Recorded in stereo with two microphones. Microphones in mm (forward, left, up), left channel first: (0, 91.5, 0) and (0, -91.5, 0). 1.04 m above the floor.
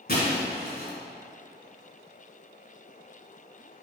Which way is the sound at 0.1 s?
60° left (ahead or behind).